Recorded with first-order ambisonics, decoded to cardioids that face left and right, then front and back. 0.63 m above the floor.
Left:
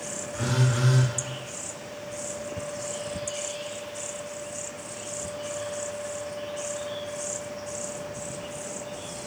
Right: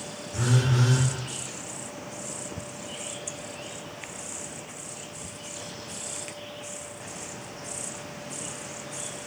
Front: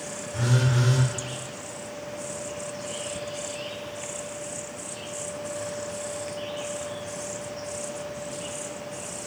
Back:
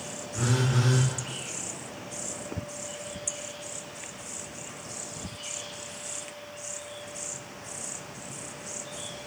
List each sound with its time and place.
0.3 s a phone buzzing: 55° right, 1.6 m